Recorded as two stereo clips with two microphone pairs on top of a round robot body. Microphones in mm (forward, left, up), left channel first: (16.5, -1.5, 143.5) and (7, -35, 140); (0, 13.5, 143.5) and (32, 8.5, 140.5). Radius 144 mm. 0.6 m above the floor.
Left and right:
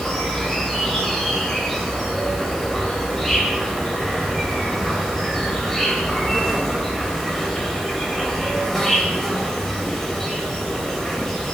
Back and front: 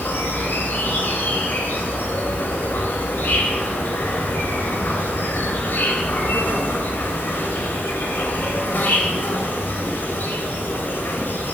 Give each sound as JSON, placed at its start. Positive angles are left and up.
{"t": 0.0, "sound": "an insect", "azimuth_deg": 155, "distance_m": 3.0}